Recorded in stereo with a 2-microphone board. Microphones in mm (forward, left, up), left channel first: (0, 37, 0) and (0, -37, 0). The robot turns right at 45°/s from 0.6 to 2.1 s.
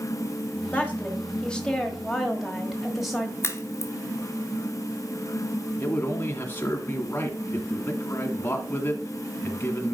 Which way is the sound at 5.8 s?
30° left (ahead or behind).